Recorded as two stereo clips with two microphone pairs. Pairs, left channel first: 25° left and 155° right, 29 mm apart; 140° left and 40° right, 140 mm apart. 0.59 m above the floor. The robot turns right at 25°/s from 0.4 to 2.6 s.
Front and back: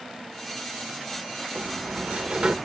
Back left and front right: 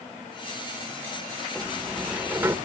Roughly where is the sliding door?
Behind right.